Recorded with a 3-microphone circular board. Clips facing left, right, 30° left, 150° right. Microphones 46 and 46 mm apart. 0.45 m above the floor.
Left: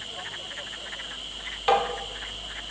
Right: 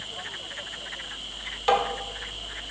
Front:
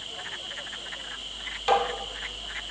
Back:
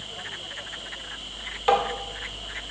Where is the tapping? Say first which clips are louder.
Even, back 2 dB; 160° left, 0.8 m.